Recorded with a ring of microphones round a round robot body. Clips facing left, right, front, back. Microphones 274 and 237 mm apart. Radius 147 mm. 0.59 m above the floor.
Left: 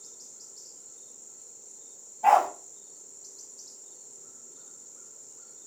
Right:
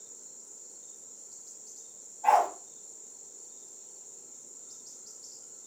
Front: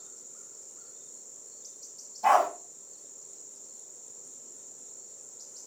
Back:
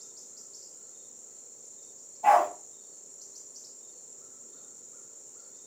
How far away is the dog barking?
About 1.4 m.